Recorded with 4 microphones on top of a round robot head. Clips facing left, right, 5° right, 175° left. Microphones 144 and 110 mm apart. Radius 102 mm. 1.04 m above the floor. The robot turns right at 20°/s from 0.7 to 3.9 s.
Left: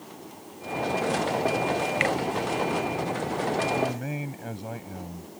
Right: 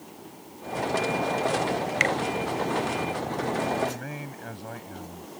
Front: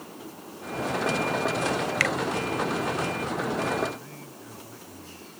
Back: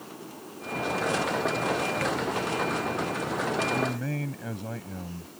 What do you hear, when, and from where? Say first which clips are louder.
2.0 s a finger snap: even, front 1 dB; 30° right
3.7 s a man speaking: left 1 dB, back 1 dB; 155° left; by 5.3 s 160° left